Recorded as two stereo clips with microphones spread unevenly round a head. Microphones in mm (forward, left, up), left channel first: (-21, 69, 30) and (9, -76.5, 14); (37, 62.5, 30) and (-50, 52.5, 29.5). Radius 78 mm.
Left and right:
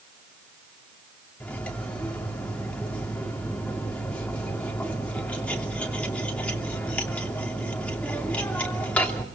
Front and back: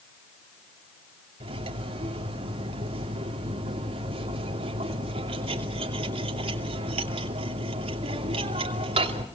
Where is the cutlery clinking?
Straight behind, 2.5 m.